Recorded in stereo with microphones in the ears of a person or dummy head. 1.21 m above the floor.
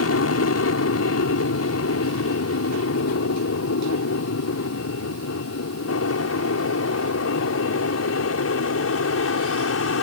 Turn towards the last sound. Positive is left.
turn(degrees=65)  # may be behind; listen again after turning